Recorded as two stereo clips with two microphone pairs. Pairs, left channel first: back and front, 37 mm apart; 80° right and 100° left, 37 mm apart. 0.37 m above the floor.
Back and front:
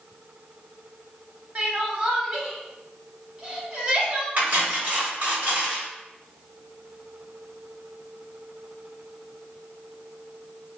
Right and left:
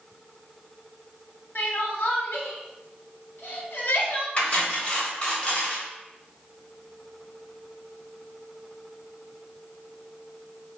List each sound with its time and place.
1.6 s crying: 60° right, 0.7 m
4.4 s cutlery clinking: 30° right, 1.0 m